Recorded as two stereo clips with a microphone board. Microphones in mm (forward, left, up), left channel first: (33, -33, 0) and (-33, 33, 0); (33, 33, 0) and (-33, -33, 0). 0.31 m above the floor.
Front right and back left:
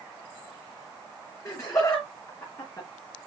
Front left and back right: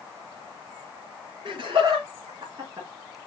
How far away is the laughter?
About 4 m.